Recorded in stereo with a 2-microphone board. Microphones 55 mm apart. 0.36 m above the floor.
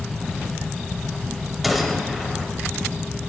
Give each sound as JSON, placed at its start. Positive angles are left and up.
{"t": 1.6, "sound": "a gunshot", "side_deg": -5, "distance_m": 1.2}